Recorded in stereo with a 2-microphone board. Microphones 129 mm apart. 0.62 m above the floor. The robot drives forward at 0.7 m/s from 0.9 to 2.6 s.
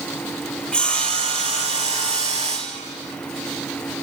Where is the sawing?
5° left (ahead or behind), 3 m.